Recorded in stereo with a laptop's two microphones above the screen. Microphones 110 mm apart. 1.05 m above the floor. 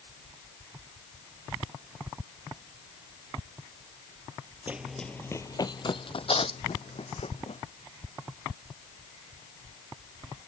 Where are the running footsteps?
15° right (ahead or behind); by 7.6 s 70° left (ahead or behind).